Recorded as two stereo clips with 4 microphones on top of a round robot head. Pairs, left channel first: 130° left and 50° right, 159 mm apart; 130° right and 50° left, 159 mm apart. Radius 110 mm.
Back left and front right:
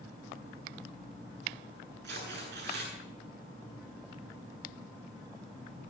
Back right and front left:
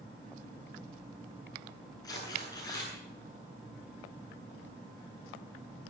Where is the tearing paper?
60° right, 9.5 m.